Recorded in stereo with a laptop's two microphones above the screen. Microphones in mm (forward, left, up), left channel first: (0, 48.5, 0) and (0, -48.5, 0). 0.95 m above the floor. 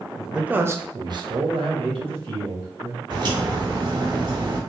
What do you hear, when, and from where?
0.2 s a man speaking: centre (ahead or behind), 0.9 m; by 3.0 s 80° right, 2 m
3.1 s a crack: 50° right (ahead or behind), 1.6 m